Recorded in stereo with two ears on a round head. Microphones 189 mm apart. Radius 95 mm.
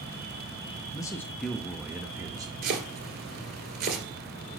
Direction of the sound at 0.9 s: 20° left (ahead or behind).